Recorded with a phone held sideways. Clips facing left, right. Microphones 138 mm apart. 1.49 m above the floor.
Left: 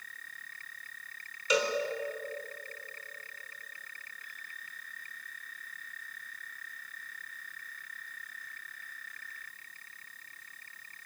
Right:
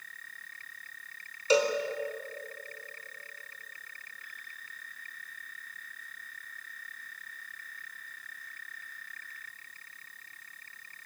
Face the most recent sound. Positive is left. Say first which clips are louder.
# right 4 dB
turn(degrees=-35)  # may be behind; listen again after turning